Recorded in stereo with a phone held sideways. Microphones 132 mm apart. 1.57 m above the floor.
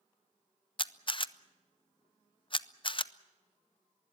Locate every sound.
0.8 s a camera shutter: 40° left (ahead or behind), 0.5 m